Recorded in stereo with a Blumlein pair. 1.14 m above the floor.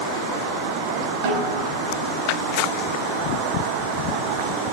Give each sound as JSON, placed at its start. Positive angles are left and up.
{"t": 1.2, "sound": "a snare drum", "azimuth_deg": -45, "distance_m": 5.5}